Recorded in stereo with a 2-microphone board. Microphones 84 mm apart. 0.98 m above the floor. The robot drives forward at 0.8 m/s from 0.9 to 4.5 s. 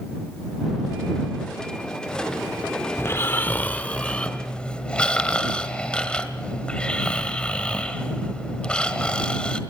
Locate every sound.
3.0 s snoring: 30° left (ahead or behind), 0.6 m; by 9.6 s 10° left (ahead or behind), 1.5 m